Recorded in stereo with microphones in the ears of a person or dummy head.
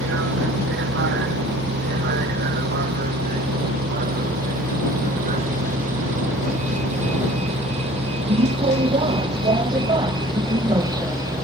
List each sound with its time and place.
0.0 s a vehicle: 70° right (ahead or behind); by 11.4 s 20° right (ahead or behind)